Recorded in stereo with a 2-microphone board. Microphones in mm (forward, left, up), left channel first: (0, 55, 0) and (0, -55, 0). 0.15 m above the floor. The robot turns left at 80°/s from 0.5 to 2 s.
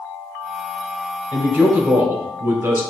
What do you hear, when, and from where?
1.3 s a man speaking: 10° right (ahead or behind), 1.1 m; by 2.8 s 25° right (ahead or behind), 1.1 m